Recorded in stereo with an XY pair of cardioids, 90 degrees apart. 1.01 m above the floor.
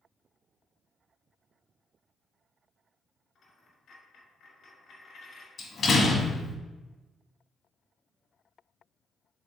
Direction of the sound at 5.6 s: 55° left.